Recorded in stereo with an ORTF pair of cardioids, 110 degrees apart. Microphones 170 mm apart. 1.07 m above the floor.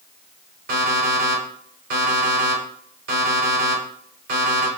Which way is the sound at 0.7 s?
70° right.